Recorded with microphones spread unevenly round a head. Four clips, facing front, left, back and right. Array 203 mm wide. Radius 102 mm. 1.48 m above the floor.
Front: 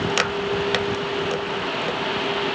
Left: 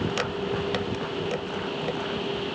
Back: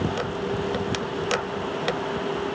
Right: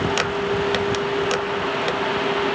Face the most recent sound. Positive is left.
No sound to turn to.